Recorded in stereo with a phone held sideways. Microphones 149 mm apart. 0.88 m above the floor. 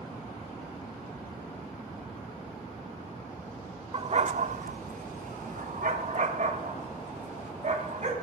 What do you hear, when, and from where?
3.9 s a dog barking: 40° right (ahead or behind), 0.6 m; by 8.1 s 50° right (ahead or behind), 2.5 m